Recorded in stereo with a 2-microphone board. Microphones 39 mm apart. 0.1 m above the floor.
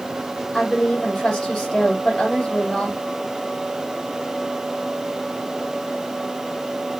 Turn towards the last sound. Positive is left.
turn(degrees=10)  # may be behind; listen again after turning